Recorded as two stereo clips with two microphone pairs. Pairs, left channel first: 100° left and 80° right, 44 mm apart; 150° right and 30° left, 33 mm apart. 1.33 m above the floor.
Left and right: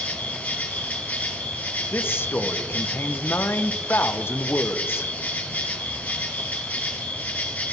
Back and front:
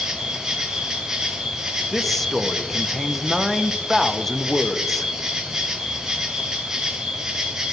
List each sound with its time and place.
0.0 s an insect: 100° left, 1.3 m
1.9 s a man speaking: 130° left, 0.6 m